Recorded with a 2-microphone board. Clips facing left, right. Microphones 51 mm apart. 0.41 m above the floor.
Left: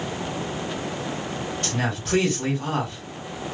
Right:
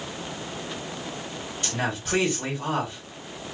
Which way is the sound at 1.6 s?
5° right (ahead or behind).